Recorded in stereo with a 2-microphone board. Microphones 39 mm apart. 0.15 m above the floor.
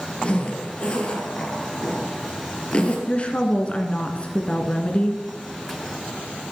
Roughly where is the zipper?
Left.